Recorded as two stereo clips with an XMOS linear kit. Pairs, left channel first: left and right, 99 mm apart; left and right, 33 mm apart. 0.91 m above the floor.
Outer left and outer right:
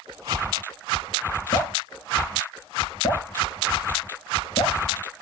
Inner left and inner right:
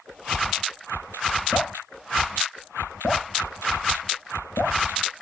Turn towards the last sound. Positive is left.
turn(degrees=40)  # may be behind; listen again after turning